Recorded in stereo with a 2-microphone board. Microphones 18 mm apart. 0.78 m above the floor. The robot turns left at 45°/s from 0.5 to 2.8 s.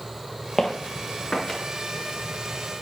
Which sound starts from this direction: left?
Footsteps, at 0.6 s.